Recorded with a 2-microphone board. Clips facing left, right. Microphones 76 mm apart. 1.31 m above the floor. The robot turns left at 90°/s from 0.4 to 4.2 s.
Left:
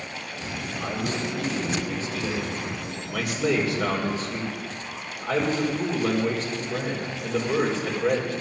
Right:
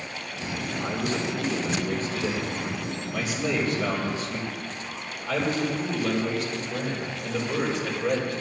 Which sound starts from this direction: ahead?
A man speaking, at 0.8 s.